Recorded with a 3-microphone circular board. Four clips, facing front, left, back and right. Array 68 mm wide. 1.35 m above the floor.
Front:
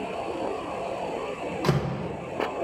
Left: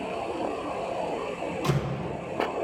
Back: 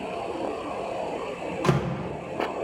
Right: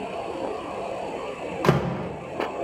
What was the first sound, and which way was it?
A door slam, 95° right.